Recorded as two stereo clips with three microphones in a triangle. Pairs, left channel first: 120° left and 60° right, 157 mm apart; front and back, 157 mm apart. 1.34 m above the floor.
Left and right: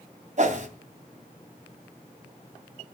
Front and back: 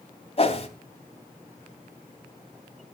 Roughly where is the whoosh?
Ahead right.